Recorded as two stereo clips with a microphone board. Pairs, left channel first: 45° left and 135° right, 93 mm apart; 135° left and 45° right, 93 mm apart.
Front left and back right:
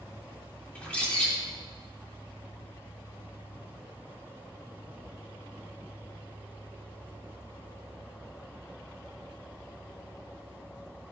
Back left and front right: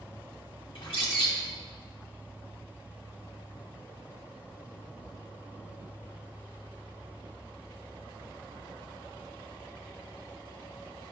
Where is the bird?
120° left, 3 m.